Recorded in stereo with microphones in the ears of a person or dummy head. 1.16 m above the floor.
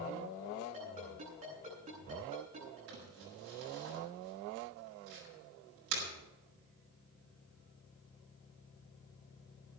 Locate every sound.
0.7 s a ringtone: 25° right (ahead or behind), 10 m
2.9 s crumpling: 85° right, 6.5 m